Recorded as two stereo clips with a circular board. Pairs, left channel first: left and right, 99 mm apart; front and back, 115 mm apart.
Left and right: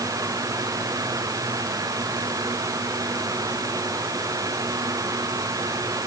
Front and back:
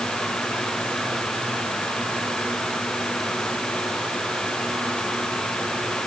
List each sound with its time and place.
Only background noise.